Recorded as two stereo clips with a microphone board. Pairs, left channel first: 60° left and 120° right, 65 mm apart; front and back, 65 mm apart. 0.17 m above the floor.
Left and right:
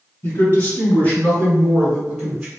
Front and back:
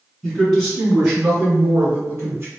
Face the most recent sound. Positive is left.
turn(degrees=175)